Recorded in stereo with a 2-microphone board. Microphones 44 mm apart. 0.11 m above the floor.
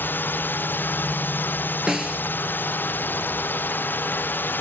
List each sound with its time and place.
0.0 s a drone: 50° left (ahead or behind)
1.9 s a snare drum: 15° right (ahead or behind)